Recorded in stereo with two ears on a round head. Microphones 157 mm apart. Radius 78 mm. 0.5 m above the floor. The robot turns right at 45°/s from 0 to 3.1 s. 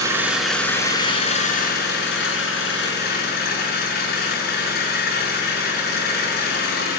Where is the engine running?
20° right, 7 m; by 7.0 s 120° left, 7 m.